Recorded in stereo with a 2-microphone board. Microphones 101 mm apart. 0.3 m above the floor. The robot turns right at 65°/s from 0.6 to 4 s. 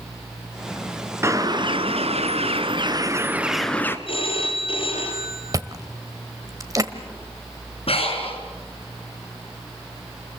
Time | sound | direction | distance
1.2 | a bird | 155° right | 1.4 m
4.1 | a phone ringing | 60° left (ahead or behind) | 4 m
5.5 | chewing | 35° right (ahead or behind) | 1.5 m
7.9 | breathing | 70° left (ahead or behind) | 4 m